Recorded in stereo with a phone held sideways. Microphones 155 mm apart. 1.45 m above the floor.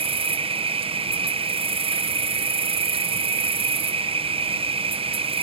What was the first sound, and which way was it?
An insect, 35° right (ahead or behind).